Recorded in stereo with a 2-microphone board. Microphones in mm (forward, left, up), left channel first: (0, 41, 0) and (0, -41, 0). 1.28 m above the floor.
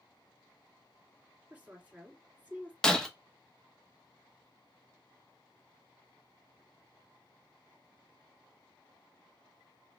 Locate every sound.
1.5 s a woman speaking: 15° right (ahead or behind), 2.5 m
2.8 s breaking glass: 5° left (ahead or behind), 0.9 m